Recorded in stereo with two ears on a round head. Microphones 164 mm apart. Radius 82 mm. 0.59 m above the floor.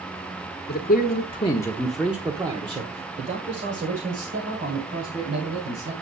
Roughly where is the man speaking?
Left.